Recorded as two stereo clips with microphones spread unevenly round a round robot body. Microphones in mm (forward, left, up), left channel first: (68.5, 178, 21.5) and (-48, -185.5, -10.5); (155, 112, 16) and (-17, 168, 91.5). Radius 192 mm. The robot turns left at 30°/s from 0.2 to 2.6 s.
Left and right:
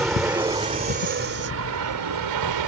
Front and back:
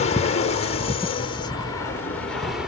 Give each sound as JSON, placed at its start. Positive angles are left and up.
{"t": 0.0, "sound": "an aircraft", "azimuth_deg": -20}